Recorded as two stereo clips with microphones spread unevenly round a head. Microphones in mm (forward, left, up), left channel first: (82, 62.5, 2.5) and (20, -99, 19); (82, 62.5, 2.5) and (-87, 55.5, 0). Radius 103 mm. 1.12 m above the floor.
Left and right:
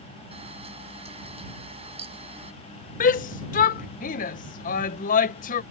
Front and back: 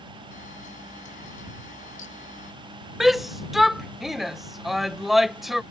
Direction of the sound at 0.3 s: 55° right.